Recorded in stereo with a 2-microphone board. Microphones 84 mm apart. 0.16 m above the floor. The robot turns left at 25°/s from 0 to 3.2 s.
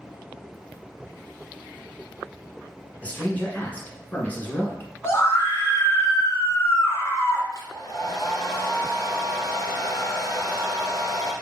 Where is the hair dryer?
40° left (ahead or behind), 1.5 m.